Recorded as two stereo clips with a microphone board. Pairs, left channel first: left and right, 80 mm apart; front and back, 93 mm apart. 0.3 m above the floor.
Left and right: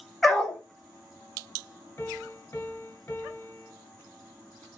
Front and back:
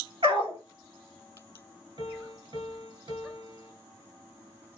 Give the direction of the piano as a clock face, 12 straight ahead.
7 o'clock.